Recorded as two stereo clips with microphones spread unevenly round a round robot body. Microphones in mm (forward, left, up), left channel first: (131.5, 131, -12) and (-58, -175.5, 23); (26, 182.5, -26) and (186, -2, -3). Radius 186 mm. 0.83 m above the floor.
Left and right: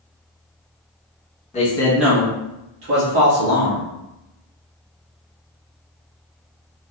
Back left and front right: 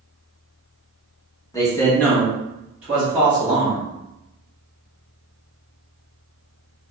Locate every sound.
1.5 s a man speaking: 85° left, 1.0 m; by 3.8 s 130° right, 1.6 m